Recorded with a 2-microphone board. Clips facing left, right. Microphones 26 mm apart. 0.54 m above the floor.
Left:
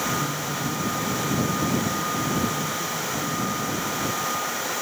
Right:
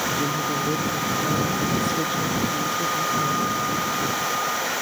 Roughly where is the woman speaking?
Right.